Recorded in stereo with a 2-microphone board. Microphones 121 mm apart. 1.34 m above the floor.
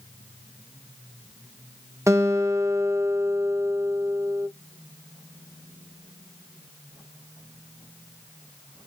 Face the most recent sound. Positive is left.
turn(degrees=-25)  # may be behind; listen again after turning